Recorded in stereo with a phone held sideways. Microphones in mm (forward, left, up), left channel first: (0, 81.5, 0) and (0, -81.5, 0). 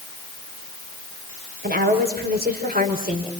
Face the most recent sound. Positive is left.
turn(degrees=-55)  # may be behind; listen again after turning